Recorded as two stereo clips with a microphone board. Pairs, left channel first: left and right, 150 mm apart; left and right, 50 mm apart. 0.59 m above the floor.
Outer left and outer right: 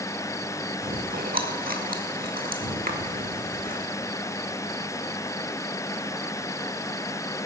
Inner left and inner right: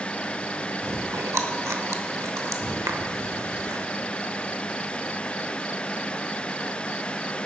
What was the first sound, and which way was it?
Chewing, 75° right (ahead or behind).